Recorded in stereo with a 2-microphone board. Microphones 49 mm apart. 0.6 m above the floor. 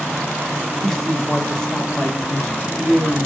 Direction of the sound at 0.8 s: 10° left (ahead or behind).